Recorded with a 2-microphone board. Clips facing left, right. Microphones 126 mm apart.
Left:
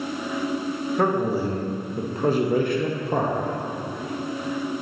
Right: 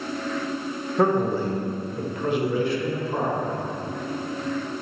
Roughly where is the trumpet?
No trumpet in this recording.